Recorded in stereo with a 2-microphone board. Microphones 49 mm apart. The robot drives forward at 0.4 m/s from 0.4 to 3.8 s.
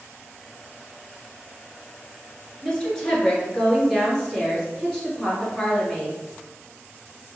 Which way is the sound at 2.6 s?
15° left (ahead or behind).